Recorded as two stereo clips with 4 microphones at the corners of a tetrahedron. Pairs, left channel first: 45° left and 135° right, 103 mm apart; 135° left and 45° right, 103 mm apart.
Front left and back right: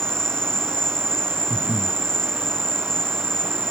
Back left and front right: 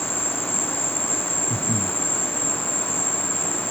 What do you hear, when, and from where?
0.0 s an insect: 130° left
1.5 s breathing: 85° left